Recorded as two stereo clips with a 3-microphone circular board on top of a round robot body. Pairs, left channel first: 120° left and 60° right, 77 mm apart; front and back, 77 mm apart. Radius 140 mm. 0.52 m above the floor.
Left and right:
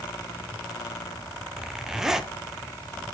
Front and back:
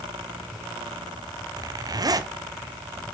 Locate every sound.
1.6 s a zipper: 145° right, 0.9 m